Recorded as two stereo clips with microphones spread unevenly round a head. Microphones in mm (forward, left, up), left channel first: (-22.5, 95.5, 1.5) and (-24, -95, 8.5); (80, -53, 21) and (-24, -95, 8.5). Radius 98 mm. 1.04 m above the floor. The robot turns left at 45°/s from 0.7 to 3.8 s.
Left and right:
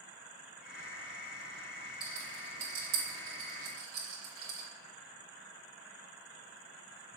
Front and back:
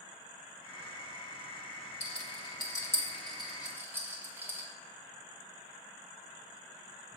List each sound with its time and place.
2.0 s a rattle: 5° right, 3 m; by 4.7 s 85° right, 3 m